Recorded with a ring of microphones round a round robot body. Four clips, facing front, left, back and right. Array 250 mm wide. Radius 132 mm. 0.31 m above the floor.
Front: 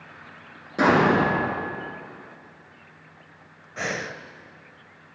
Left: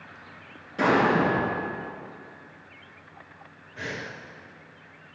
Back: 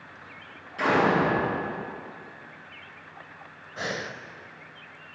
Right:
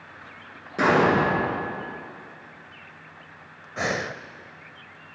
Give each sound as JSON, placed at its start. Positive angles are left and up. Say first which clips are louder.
{"t": 0.8, "sound": "an explosion", "louder": "right 2 dB, front 4 dB", "azimuth_deg": -35, "distance_m": 4.5}
{"t": 3.8, "sound": "breathing", "louder": "right 8 dB, front 2 dB", "azimuth_deg": -80, "distance_m": 0.6}